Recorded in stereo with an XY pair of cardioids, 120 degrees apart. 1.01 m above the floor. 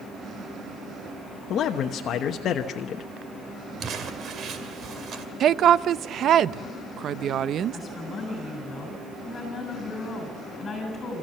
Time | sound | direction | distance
1.5 | a man speaking | 55° left | 1.0 m
3.8 | crumpling | 50° right | 2 m
5.4 | a woman speaking | 55° right | 0.5 m
7.7 | a woman speaking | 35° left | 8 m